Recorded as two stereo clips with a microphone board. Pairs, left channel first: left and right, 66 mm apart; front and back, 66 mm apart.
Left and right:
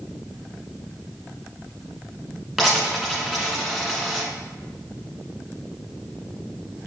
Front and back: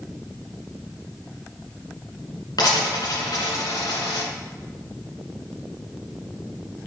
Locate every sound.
2.6 s a dropped coin: straight ahead, 2 m